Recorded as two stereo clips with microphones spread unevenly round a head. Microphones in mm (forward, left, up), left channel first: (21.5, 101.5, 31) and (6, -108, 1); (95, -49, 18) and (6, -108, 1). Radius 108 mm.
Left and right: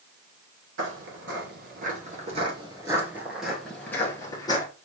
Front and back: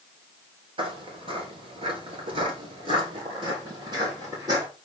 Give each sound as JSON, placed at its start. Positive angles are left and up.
{"t": 0.8, "sound": "footsteps", "azimuth_deg": -115, "distance_m": 1.7}